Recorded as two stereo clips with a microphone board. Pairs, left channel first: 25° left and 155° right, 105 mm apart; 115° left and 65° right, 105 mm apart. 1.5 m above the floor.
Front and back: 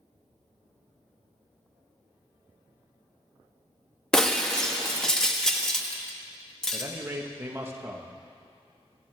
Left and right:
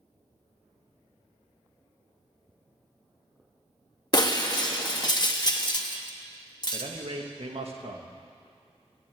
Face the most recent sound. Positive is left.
turn(degrees=-90)